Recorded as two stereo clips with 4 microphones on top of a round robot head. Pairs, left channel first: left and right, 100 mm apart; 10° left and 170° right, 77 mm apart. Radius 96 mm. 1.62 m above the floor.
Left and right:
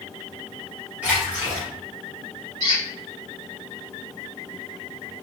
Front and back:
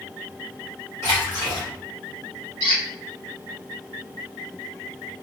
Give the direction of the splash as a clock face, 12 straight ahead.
1 o'clock.